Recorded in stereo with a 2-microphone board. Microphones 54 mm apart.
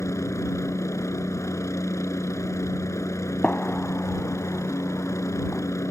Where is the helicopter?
60° left (ahead or behind).